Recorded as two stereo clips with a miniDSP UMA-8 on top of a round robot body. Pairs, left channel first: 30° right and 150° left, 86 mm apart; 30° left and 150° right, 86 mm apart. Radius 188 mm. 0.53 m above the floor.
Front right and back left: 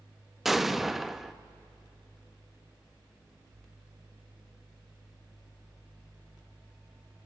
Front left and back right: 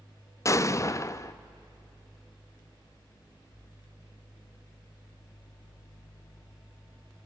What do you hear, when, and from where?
0.5 s an explosion: 65° left, 0.7 m